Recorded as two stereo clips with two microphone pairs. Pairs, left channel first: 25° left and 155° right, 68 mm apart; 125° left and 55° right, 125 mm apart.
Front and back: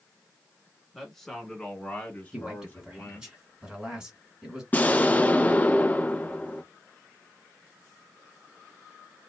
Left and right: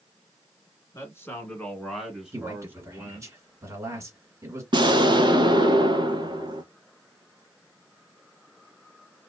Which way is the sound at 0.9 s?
105° left.